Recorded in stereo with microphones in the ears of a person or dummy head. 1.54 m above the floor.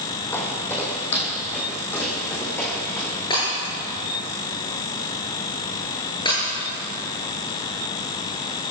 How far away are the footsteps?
About 3 m.